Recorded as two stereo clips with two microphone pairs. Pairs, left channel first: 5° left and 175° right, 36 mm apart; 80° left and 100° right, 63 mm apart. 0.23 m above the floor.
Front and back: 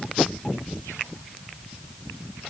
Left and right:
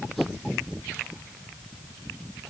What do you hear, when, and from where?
Only background noise.